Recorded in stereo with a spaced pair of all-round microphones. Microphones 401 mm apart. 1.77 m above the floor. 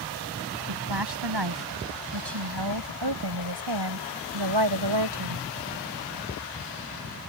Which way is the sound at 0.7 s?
70° right (ahead or behind).